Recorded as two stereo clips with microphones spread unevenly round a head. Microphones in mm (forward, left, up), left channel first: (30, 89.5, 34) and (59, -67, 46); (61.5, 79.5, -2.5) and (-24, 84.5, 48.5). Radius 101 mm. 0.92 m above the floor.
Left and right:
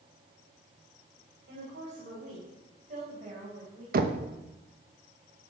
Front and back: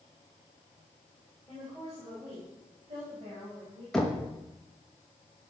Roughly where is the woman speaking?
Right.